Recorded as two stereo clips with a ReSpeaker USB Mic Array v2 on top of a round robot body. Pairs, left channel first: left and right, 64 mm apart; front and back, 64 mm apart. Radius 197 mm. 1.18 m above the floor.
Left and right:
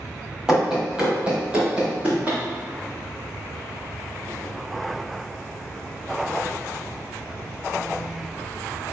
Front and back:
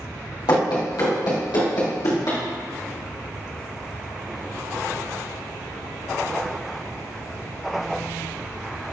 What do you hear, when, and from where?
0.5 s running footsteps: 10° right, 2.5 m; by 2.4 s 25° right, 3.5 m